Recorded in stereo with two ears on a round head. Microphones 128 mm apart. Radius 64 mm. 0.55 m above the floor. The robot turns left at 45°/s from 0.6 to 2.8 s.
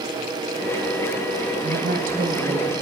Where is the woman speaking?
90° right, 3.5 m; by 2.7 s 140° right, 3.5 m.